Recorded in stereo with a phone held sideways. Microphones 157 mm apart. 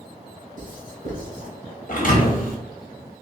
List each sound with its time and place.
0.6 s writing: 60° right (ahead or behind), 2 m
1.9 s a thud: 60° left (ahead or behind), 1.2 m